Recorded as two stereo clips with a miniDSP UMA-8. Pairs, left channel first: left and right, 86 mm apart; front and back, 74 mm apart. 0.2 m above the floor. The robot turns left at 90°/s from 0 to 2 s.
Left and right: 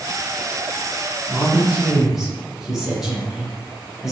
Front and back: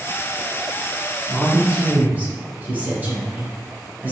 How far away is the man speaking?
About 1.0 m.